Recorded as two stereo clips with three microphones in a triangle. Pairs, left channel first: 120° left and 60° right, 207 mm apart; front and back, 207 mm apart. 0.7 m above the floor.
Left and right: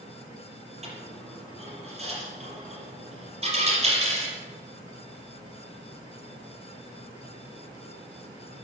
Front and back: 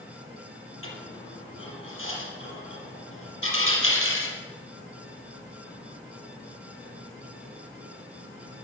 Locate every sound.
0.8 s a dropped coin: straight ahead, 5.5 m